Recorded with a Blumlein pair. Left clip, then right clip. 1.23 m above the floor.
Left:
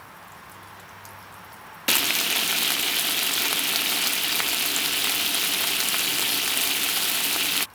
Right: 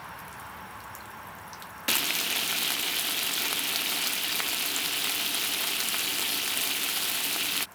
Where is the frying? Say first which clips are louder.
Left 5 dB; 15° left.